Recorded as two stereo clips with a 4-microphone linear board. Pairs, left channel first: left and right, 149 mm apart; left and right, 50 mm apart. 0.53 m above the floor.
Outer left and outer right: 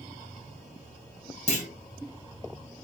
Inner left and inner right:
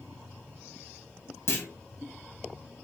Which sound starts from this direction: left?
A clunk, at 1.5 s.